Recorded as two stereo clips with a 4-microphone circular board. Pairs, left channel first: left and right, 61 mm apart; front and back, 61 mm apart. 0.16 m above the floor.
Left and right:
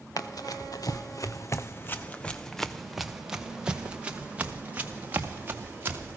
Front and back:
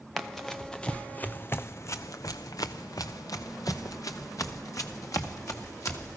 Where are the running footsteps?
90° left, 1.1 m; by 6.2 s 30° right, 2.5 m.